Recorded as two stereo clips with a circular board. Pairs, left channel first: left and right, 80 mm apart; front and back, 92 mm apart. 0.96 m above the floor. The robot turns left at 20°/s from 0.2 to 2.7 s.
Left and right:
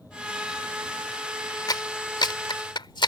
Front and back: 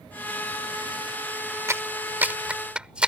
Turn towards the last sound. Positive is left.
turn(degrees=100)